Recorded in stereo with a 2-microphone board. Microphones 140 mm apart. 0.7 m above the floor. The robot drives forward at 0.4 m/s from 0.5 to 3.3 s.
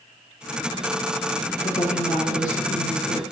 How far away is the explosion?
I don't hear an explosion.